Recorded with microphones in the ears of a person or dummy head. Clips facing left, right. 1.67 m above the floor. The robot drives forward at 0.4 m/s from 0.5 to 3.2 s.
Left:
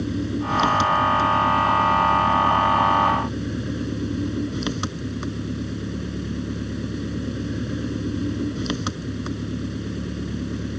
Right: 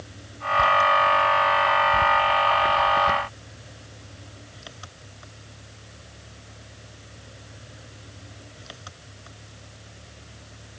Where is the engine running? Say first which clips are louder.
Left 15 dB; 75° left (ahead or behind); by 10.8 s 80° left.